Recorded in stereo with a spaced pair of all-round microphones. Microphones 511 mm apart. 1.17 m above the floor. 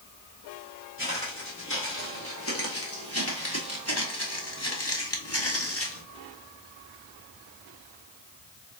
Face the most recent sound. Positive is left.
turn(degrees=25)  # may be behind; listen again after turning